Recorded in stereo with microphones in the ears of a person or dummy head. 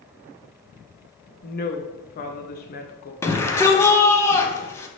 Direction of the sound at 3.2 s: 10° left (ahead or behind).